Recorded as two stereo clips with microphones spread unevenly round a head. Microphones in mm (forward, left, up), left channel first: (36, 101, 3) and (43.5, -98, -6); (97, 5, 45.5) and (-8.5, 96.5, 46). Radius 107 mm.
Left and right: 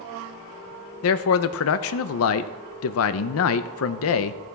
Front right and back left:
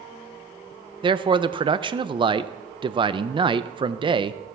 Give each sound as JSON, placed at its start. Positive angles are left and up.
{"t": 1.0, "sound": "a man speaking", "azimuth_deg": 80, "distance_m": 0.6}